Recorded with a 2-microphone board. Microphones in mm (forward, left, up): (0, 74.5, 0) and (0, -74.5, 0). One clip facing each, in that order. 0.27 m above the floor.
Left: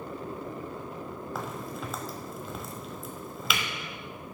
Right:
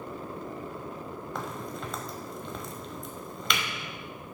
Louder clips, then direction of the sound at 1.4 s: Even; 5° left (ahead or behind).